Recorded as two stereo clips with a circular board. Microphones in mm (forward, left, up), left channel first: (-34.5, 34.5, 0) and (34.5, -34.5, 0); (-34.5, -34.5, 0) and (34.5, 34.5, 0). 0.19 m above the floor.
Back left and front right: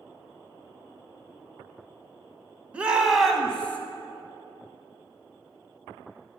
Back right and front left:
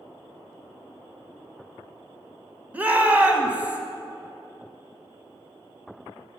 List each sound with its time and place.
2.7 s a shout: 10° left, 1.0 m; by 3.8 s 95° left, 1.0 m